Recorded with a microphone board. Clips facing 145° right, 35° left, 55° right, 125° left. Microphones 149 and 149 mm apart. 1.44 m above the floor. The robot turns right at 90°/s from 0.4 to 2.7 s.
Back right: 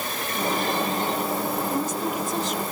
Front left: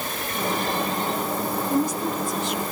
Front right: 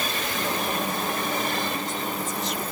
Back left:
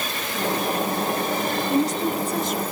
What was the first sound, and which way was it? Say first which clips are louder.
A woman speaking: front left 3 dB, back left 9 dB; 95° left.